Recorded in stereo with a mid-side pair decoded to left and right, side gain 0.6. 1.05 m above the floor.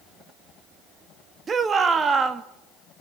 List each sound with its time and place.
1.5 s a shout: 30° right, 1.7 m